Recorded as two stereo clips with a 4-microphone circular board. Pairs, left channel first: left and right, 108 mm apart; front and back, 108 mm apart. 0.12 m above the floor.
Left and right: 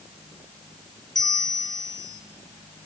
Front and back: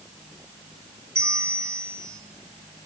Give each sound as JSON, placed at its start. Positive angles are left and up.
{"t": 1.1, "sound": "a bell", "azimuth_deg": 125, "distance_m": 0.8}